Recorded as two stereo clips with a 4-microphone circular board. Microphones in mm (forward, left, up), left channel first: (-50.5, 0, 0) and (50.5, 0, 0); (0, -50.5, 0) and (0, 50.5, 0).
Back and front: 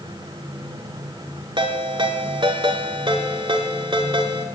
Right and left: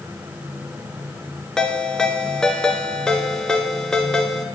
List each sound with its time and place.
1.6 s a ringtone: 10° right, 1.5 m